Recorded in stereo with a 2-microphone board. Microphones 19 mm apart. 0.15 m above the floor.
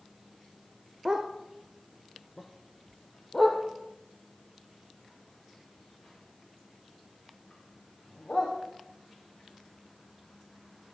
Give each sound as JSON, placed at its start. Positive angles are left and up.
{"t": 1.1, "sound": "a dog barking", "side_deg": -35, "distance_m": 1.5}